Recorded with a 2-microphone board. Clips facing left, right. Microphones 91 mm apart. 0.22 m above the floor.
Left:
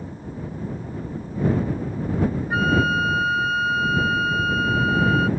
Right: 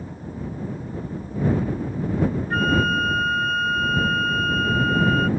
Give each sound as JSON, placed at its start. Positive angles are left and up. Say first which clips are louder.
{"t": 2.5, "sound": "a flute", "louder": "left 1 dB", "side_deg": 5}